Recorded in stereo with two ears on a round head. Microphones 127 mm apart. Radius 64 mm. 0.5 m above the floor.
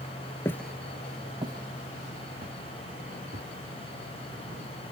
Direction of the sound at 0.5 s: 20° left (ahead or behind).